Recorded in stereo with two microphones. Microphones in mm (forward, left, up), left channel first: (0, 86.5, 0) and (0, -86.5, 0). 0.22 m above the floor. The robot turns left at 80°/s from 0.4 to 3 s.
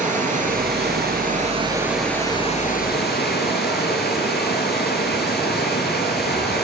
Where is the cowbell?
No cowbell in this recording.